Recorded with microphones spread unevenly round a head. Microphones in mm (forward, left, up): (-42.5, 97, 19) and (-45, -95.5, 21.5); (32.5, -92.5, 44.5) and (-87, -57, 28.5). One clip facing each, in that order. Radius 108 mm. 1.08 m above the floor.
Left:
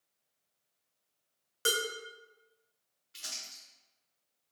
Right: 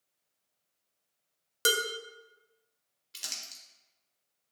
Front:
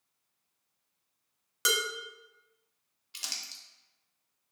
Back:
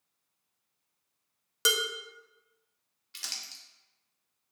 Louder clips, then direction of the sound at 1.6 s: Right 3 dB, back 1 dB; 135° right.